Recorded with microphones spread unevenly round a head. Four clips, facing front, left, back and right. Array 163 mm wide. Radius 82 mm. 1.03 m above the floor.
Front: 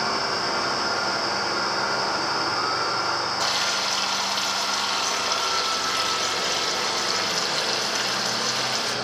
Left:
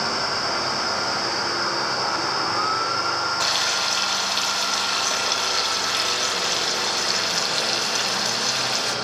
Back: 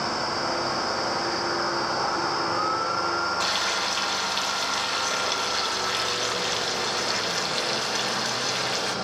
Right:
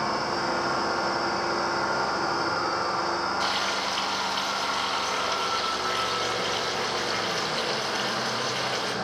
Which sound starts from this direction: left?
Frying, at 3.4 s.